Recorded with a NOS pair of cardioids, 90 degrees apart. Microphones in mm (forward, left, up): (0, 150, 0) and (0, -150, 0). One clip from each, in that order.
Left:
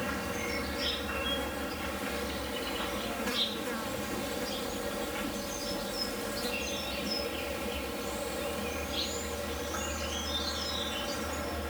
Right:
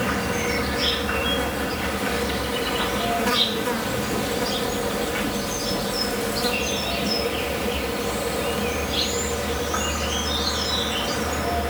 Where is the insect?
60° right.